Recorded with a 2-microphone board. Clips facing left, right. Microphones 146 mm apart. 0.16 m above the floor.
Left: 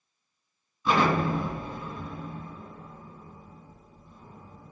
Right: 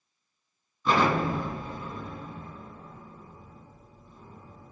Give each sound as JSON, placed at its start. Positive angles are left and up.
{"t": 0.8, "sound": "an explosion", "side_deg": 5, "distance_m": 1.7}